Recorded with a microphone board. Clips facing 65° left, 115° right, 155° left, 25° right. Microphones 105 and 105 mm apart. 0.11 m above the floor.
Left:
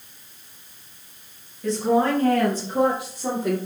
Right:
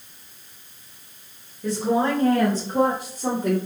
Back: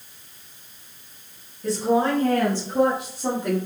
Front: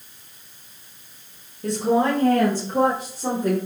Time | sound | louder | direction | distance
1.6 | a woman speaking | left 2 dB, front 1 dB | 30° right | 1.9 m